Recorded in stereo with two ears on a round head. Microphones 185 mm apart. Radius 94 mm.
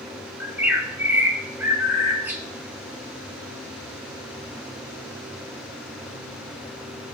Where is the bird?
10° right (ahead or behind), 1.5 m.